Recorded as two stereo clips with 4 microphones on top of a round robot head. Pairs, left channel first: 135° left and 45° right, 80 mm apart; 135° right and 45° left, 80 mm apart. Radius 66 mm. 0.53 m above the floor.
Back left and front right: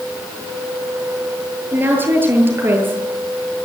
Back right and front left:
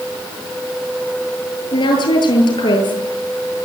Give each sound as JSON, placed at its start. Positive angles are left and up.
{"t": 1.7, "sound": "a woman speaking", "azimuth_deg": -105, "distance_m": 9.5}